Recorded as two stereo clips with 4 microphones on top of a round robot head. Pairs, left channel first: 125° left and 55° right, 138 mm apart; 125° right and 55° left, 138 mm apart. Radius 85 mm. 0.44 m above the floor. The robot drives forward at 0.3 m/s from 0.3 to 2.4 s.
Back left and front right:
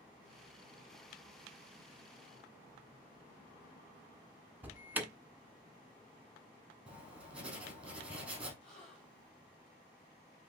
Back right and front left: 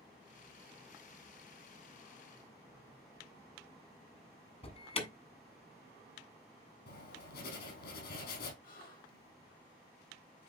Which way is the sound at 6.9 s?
135° right.